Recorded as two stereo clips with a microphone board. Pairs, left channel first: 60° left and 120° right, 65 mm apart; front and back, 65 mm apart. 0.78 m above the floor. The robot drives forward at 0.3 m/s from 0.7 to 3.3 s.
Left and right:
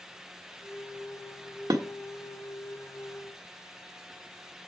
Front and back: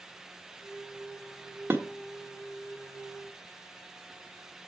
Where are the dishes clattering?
130° right, 1.3 m.